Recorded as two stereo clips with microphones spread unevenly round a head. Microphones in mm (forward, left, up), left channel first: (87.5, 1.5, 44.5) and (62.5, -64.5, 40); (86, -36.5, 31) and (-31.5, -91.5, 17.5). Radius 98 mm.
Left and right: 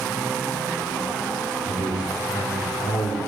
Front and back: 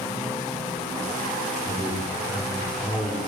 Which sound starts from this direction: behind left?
A man speaking, at 1.7 s.